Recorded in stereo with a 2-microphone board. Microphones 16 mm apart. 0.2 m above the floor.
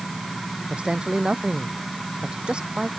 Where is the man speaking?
80° right.